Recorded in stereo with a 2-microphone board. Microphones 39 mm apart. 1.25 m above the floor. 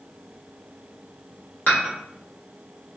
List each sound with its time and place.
1.7 s dishes clattering: 55° left (ahead or behind), 1.5 m